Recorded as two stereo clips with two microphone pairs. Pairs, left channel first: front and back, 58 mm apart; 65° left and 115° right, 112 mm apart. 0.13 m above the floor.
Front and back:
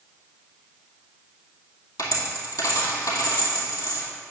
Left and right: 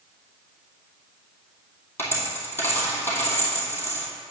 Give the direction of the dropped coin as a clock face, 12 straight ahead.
12 o'clock.